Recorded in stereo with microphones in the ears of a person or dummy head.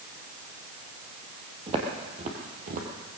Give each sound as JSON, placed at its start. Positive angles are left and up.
{"t": 1.7, "sound": "footsteps", "side_deg": -25, "distance_m": 3.0}